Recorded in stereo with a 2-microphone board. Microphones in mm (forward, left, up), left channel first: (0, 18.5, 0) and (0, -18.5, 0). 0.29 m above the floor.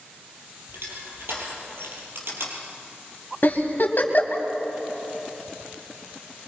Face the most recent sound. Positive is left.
turn(degrees=50)  # may be behind; listen again after turning